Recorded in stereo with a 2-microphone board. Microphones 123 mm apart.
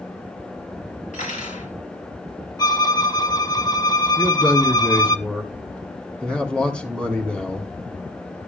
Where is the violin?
30° left (ahead or behind), 0.5 m.